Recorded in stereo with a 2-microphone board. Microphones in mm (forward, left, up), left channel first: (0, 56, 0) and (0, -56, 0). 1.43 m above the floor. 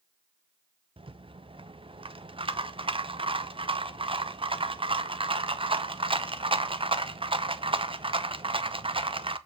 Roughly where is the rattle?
Right.